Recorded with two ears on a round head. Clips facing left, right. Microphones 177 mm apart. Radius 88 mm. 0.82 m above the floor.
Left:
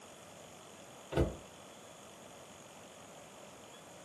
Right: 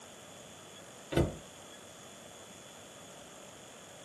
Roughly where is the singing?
I don't hear singing.